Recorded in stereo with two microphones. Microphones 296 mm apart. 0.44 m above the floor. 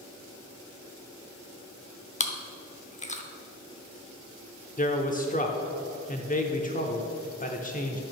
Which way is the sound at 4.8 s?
25° left (ahead or behind).